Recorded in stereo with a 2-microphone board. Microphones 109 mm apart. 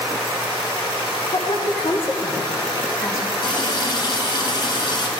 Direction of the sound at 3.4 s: 45° left (ahead or behind).